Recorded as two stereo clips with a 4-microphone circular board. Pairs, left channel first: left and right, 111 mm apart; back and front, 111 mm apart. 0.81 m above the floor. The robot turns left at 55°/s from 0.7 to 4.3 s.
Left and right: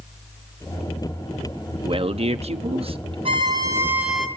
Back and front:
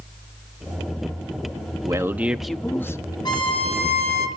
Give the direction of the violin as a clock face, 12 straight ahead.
4 o'clock.